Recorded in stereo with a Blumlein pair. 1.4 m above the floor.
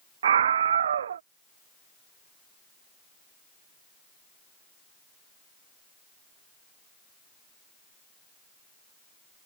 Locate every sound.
0.2 s a scream: 65° right